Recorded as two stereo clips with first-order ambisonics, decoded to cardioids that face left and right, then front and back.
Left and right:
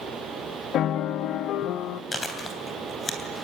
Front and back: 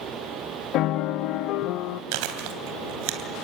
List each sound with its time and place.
0.7 s a piano: 40° left, 0.5 m
2.1 s chewing: 170° left, 3 m